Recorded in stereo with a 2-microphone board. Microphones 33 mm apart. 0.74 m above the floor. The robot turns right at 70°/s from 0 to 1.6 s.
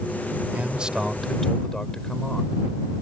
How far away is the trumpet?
I don't hear a trumpet.